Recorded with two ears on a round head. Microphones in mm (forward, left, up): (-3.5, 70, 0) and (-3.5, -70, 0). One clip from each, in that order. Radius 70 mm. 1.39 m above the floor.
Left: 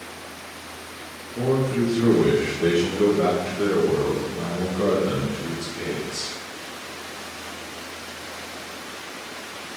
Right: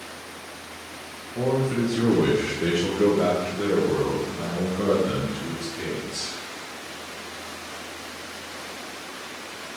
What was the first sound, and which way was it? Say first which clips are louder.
A man speaking: left 1 dB; 80° right.